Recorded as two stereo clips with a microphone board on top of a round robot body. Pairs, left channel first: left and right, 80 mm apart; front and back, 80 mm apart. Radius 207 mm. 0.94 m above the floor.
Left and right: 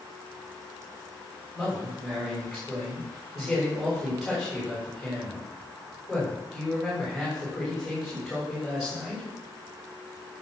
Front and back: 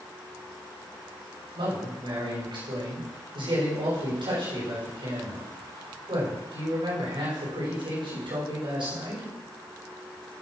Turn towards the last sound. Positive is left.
turn(degrees=180)